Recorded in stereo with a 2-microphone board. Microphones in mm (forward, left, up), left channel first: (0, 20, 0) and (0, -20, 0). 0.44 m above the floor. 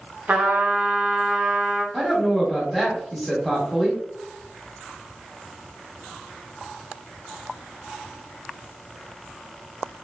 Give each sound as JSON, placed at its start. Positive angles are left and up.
{"t": 0.3, "sound": "a trumpet", "side_deg": -35, "distance_m": 0.6}
{"t": 1.9, "sound": "a woman speaking", "side_deg": 0, "distance_m": 0.8}